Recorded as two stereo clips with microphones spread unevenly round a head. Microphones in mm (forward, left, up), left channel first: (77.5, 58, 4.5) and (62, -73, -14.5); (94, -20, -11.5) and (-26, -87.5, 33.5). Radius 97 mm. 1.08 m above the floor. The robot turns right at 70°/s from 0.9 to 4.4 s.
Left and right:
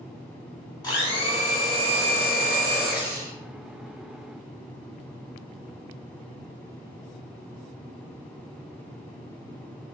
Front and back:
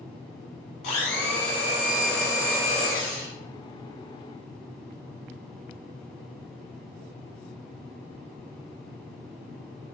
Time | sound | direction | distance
0.8 | a blender | 30° left | 2 m